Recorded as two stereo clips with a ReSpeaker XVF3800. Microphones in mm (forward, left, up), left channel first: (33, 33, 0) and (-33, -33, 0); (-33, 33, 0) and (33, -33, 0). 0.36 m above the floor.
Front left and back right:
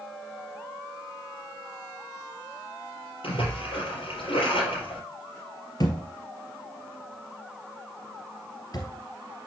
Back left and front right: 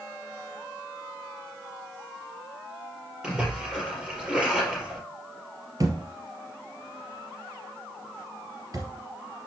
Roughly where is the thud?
Ahead.